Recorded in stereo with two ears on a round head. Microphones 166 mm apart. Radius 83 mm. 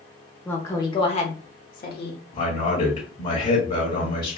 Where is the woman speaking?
10° left (ahead or behind), 1.0 m; by 2.2 s 60° left (ahead or behind), 1.2 m.